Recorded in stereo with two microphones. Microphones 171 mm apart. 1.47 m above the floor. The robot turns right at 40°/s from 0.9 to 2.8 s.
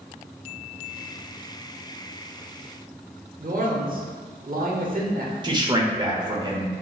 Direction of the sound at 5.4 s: 25° right (ahead or behind).